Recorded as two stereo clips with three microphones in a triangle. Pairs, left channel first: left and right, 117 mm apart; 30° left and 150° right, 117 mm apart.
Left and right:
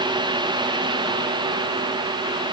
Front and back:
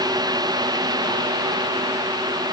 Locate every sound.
Only background noise.